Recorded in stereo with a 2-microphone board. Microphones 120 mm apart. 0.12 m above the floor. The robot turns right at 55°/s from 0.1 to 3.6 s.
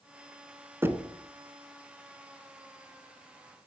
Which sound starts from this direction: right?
Knocking, at 0.8 s.